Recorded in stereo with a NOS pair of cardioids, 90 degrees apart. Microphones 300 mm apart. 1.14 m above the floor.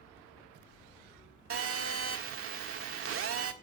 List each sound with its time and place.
1.5 s a phone buzzing: 50° right, 1.7 m